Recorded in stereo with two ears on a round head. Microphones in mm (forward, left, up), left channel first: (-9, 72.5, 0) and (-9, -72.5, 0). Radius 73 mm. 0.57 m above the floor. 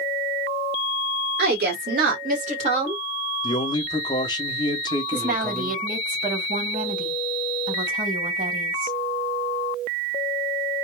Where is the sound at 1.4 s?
70° right (ahead or behind), 1.6 m; by 3.0 s 30° right (ahead or behind), 1.2 m.